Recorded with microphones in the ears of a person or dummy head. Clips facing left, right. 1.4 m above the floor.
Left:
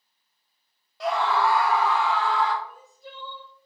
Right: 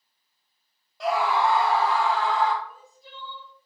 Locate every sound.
1.0 s a scream: centre (ahead or behind), 0.7 m; by 2.5 s 45° right (ahead or behind), 1.4 m
2.6 s crying: 40° left (ahead or behind), 1.0 m